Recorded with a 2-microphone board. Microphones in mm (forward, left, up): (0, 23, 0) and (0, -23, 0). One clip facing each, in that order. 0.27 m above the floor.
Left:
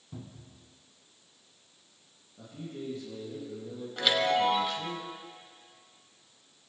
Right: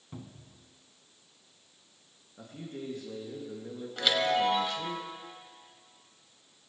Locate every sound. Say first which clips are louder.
0.1 s a cupboard door: even; 35° right (ahead or behind), 1.9 m
2.4 s a man speaking: even; 70° right (ahead or behind), 4 m
4.0 s a chime: left 1 dB; centre (ahead or behind), 1.5 m